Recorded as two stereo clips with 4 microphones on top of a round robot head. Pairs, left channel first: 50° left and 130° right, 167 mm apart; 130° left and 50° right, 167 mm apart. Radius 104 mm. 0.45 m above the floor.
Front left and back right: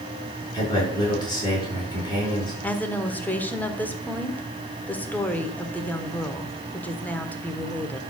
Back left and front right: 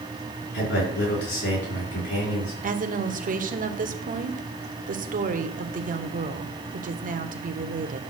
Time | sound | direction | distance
0.5 | a man speaking | 115° left | 6 m
2.6 | a woman speaking | 30° right | 1.3 m